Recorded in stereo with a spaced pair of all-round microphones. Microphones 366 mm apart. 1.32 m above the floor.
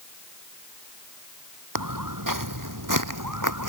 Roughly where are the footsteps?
Right.